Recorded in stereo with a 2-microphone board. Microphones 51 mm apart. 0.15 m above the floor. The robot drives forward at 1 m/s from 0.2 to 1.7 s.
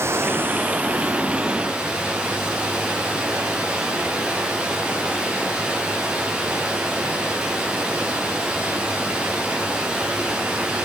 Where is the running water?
55° right (ahead or behind), 0.7 m; by 10.8 s 15° right (ahead or behind), 2 m.